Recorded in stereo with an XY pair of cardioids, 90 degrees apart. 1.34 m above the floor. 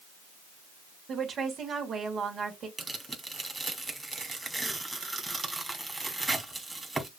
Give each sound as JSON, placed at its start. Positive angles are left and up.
{"t": 1.1, "sound": "a woman speaking", "azimuth_deg": -60, "distance_m": 3.0}
{"t": 2.8, "sound": "tearing paper", "azimuth_deg": -20, "distance_m": 2.5}